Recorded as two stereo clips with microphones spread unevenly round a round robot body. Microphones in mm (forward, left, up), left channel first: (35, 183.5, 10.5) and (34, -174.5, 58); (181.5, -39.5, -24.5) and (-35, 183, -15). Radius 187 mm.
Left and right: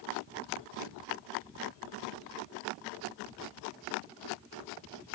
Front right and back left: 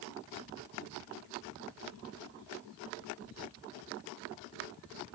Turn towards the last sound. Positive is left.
No sound to turn to.